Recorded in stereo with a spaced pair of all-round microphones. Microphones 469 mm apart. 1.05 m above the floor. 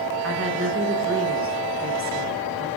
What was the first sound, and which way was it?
A woman speaking, 30° right (ahead or behind).